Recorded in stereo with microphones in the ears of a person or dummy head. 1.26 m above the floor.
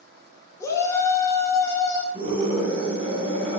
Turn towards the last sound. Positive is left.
turn(degrees=-40)  # may be behind; listen again after turning